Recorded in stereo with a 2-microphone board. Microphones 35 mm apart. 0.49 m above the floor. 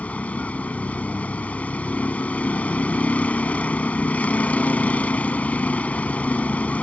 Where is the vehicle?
45° left (ahead or behind).